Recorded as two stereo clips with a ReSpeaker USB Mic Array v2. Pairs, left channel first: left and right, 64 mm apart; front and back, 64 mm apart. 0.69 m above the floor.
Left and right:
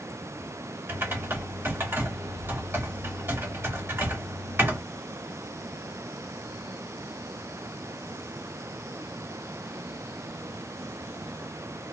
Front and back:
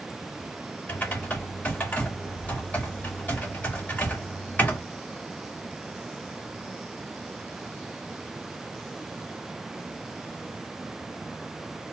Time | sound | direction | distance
0.9 | typing on a keyboard | 50° right | 1.4 m